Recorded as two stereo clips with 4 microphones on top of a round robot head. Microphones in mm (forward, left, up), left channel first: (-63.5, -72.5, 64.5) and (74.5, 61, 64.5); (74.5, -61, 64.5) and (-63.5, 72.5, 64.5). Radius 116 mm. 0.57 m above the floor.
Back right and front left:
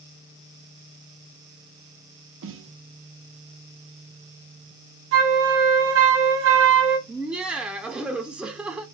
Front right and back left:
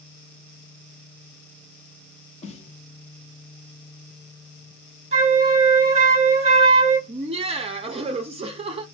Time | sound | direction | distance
2.4 | a snare drum | 20° left | 0.5 m
5.1 | a flute | 70° left | 1.0 m
7.1 | laughter | 125° left | 0.6 m